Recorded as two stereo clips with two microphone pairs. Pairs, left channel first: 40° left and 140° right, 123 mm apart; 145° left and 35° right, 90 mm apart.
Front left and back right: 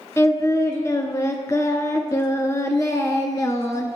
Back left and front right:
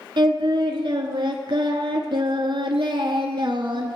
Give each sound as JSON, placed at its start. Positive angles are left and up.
{"t": 0.2, "sound": "singing", "azimuth_deg": -25, "distance_m": 0.7}